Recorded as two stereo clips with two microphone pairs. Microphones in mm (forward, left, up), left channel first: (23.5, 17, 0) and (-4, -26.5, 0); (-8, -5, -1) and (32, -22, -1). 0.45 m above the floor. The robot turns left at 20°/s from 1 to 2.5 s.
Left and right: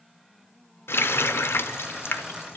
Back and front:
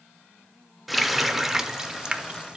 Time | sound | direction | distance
0.9 | a running tap | 65° left | 0.5 m